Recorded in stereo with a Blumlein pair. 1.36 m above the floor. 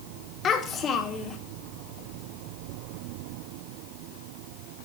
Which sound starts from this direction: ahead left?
A child speaking, at 0.4 s.